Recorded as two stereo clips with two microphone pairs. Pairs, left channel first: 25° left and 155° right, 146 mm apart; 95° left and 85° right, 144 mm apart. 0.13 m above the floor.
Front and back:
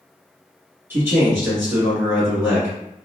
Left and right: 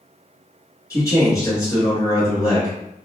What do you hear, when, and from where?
0.9 s a man speaking: 140° left, 1.4 m